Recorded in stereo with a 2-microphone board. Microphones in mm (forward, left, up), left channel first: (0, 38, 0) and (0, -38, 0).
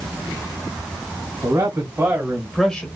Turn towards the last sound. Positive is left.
turn(degrees=20)  # may be behind; listen again after turning